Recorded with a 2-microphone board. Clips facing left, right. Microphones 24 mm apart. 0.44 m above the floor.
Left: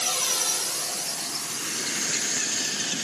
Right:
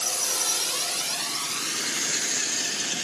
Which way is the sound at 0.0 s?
50° left (ahead or behind).